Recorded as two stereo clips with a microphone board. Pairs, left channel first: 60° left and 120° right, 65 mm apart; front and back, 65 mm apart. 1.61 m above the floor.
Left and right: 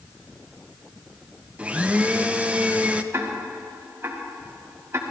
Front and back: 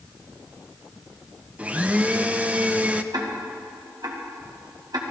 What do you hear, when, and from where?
1.6 s a blender: 155° right, 0.6 m
3.1 s ticking: 170° right, 1.7 m